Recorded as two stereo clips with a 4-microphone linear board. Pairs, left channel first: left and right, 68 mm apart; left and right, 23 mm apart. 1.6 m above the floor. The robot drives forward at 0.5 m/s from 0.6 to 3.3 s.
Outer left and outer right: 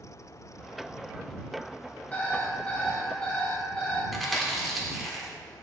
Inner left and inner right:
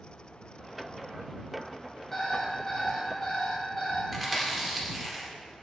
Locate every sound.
2.1 s an alarm clock: 20° left (ahead or behind), 2.0 m; by 4.0 s 15° left (ahead or behind), 2.5 m
4.1 s chewing: centre (ahead or behind), 1.6 m